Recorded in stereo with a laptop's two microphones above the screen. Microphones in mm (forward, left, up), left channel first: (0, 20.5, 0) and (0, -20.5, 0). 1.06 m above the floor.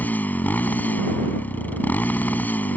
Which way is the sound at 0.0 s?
45° left (ahead or behind).